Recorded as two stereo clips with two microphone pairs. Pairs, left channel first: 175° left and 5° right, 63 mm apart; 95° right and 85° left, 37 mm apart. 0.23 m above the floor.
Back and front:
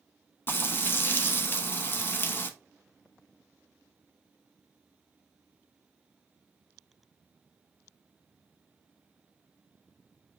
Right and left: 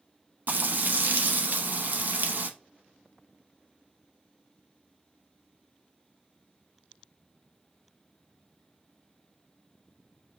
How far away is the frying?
About 0.6 m.